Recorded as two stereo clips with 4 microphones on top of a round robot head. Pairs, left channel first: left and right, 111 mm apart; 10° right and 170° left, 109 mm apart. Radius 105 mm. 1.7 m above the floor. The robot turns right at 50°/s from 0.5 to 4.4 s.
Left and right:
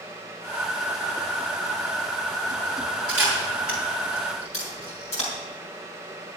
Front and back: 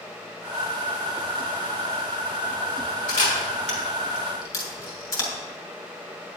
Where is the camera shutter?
15° right, 4 m; by 5.3 s 50° left, 4 m.